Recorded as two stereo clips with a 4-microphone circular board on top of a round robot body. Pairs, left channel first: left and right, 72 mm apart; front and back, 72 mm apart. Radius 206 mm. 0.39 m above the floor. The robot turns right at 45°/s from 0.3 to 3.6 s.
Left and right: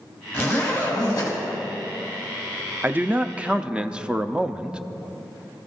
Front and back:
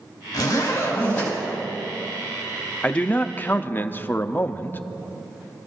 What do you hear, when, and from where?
0.3 s a zipper: 30° left, 5.5 m; by 1.4 s 75° left, 5.5 m
2.8 s a man speaking: 60° right, 0.9 m; by 4.8 s 25° right, 0.9 m